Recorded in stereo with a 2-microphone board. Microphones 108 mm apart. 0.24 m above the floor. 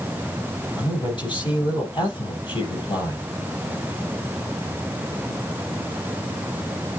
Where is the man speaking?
45° left (ahead or behind), 6.5 m.